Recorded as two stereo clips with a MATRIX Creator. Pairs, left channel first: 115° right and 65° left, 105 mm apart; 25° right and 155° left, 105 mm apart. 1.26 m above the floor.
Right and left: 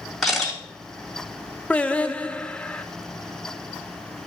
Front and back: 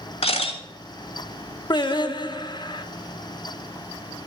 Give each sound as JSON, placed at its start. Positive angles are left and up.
{"t": 0.2, "sound": "a camera shutter", "azimuth_deg": -25, "distance_m": 3.0}
{"t": 1.7, "sound": "singing", "azimuth_deg": -40, "distance_m": 0.6}